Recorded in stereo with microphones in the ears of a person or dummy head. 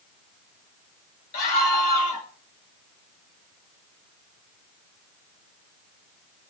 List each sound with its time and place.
1.3 s a scream: 45° left (ahead or behind), 7 m